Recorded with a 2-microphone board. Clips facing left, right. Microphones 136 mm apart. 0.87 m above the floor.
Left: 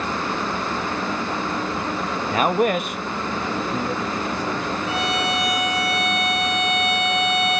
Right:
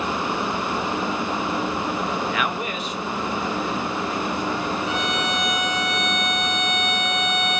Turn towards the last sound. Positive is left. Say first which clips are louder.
# left 1 dB
turn(degrees=35)  # may be behind; listen again after turning